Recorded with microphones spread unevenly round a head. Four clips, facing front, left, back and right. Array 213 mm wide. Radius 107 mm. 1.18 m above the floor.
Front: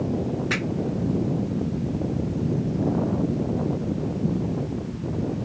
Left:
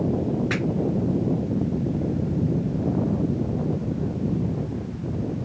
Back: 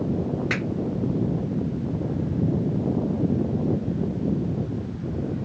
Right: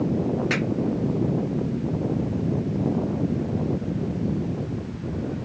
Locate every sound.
0.5 s a finger snap: 165° right, 2.5 m